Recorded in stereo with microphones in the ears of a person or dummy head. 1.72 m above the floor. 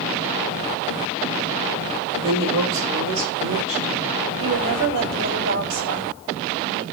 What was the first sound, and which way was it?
A woman speaking, 75° right (ahead or behind).